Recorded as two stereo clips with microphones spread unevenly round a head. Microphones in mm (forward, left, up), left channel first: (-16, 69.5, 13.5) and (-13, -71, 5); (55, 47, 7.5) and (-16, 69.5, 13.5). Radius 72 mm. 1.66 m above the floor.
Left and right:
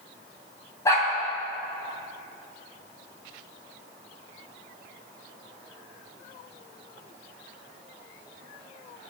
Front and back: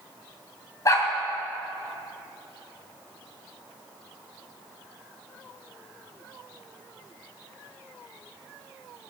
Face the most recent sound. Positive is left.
turn(degrees=25)